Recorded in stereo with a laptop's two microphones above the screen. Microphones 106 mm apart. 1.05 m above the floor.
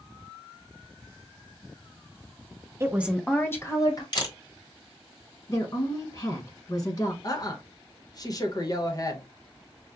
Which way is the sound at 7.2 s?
35° left (ahead or behind).